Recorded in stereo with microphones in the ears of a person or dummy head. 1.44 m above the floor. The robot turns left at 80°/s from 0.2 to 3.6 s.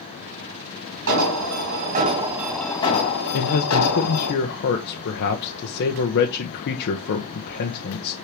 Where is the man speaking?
80° left, 1.2 m; by 8.1 s 65° left (ahead or behind), 1.2 m.